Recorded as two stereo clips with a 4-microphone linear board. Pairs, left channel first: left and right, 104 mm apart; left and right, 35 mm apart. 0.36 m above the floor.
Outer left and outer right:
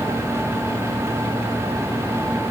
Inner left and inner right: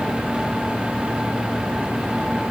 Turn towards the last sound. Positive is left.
No sound to turn to.